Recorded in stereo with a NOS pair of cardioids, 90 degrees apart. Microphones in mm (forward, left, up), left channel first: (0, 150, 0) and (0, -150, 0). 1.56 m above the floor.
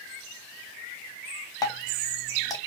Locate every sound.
1.6 s dripping: 15° left, 0.8 m